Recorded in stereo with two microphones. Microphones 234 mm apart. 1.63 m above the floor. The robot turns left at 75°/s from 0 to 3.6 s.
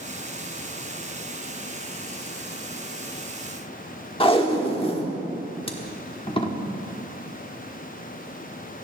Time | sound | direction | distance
4.2 | tape being pulled | 25° left (ahead or behind) | 1.3 m